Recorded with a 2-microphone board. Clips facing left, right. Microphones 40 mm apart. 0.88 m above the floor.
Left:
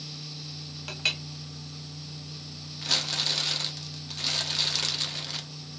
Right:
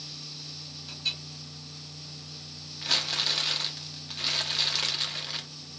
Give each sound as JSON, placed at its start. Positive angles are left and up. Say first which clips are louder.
{"t": 0.9, "sound": "a clink", "louder": "left 5 dB", "side_deg": 65, "distance_m": 0.6}
{"t": 2.8, "sound": "crumpling", "louder": "even", "side_deg": -5, "distance_m": 1.1}